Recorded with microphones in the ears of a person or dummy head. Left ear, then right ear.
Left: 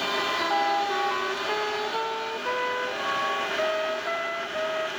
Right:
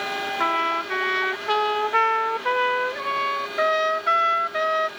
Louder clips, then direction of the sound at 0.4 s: Right 4 dB; 85° right.